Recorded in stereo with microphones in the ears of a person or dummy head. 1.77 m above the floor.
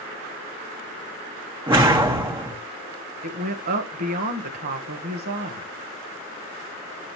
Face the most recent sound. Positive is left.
turn(degrees=-50)  # may be behind; listen again after turning